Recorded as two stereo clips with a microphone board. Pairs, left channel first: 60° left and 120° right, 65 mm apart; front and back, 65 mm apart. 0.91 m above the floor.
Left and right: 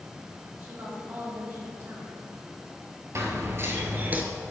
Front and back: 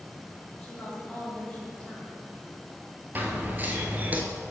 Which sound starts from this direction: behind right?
Running footsteps, at 3.1 s.